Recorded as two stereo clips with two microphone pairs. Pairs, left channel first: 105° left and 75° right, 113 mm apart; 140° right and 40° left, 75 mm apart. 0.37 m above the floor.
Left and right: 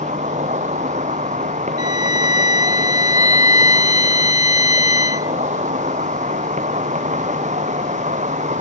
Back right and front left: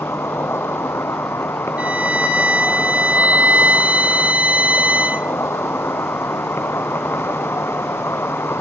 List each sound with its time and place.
0.0 s an insect: 80° right
1.8 s a violin: 115° left